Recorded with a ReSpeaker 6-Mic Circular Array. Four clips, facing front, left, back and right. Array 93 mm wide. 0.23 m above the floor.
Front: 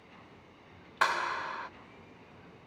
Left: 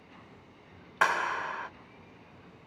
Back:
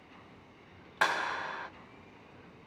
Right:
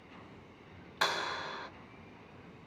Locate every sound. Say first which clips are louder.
1.0 s a clap: left 7 dB, front 1 dB; 100° left, 1.4 m